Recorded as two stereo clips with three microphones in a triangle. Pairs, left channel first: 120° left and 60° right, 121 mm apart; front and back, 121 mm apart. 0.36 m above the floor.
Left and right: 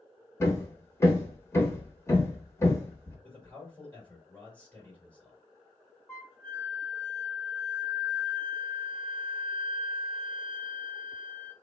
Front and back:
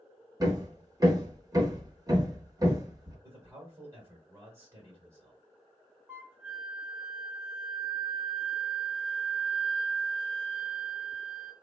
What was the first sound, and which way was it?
Hammering, 165° left.